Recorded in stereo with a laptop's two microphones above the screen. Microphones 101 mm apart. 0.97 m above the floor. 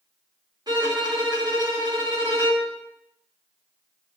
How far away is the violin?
About 1.8 m.